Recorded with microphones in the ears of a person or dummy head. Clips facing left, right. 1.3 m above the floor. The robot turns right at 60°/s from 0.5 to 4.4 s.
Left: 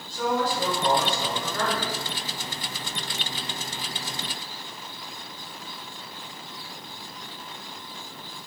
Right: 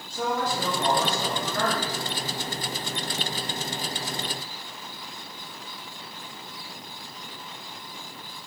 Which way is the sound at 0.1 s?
135° right.